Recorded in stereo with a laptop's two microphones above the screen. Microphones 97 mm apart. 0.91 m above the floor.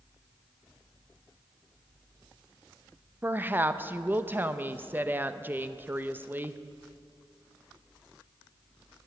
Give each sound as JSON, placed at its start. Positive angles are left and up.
{"t": 3.2, "sound": "a woman speaking", "side_deg": -20, "distance_m": 0.6}